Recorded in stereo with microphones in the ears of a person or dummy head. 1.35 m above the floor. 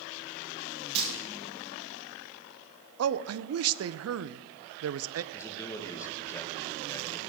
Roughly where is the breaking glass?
Right.